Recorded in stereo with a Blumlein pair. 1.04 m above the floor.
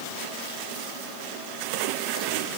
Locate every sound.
Only background noise.